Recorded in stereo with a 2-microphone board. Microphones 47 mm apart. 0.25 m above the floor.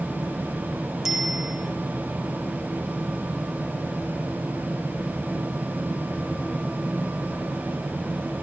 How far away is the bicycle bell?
About 10 m.